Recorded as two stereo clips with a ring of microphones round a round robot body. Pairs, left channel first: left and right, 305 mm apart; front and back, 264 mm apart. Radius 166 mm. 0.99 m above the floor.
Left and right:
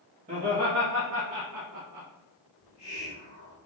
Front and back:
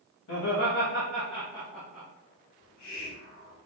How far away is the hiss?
About 1.9 m.